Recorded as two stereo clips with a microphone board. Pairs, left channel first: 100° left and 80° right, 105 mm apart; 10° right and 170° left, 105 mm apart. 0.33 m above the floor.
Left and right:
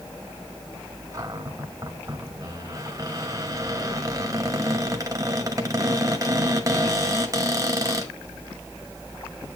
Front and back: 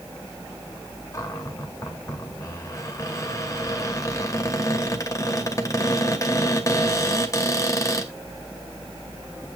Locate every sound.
1.1 s a cupboard door: 45° right, 1.8 m